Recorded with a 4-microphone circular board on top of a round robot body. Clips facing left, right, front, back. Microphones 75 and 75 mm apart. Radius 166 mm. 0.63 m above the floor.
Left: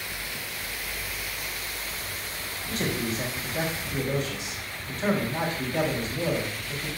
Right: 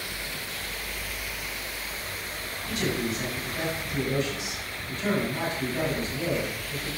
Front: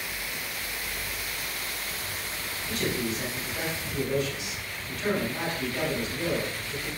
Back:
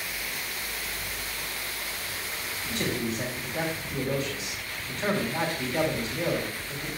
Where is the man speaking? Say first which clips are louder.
Right 1 dB, even; 130° left, 4 m.